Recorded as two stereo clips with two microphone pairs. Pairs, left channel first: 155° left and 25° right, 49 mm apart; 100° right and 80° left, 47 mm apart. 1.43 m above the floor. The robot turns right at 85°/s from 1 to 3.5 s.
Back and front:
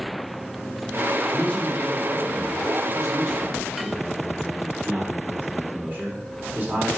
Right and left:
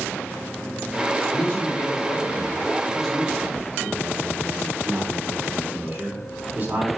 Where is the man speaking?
160° right, 4 m; by 6.9 s 25° left, 4 m.